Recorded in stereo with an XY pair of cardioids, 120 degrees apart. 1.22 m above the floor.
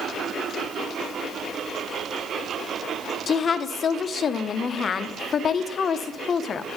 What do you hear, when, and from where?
3.3 s a woman speaking: 40° left, 0.6 m